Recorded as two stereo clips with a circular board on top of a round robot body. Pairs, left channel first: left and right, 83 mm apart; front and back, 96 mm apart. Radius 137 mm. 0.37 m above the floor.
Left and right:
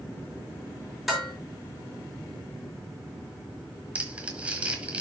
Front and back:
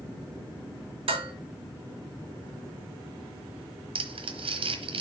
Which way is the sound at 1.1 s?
175° right.